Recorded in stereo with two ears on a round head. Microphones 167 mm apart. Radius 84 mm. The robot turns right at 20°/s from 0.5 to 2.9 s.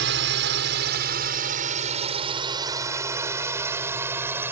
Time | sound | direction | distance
0.0 | a drone | 65° right (ahead or behind) | ?